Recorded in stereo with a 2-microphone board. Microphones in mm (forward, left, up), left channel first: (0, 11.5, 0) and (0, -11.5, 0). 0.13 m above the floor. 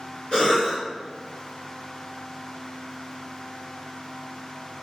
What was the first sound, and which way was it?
A cough, 40° left (ahead or behind).